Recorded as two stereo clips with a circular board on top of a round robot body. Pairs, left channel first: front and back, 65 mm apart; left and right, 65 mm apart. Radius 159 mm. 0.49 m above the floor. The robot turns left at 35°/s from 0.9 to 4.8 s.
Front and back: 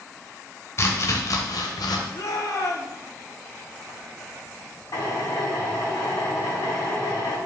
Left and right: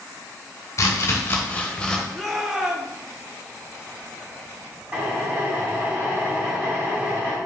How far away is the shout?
About 1.7 m.